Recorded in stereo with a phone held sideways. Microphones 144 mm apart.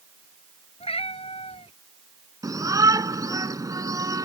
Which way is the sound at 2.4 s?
25° right (ahead or behind).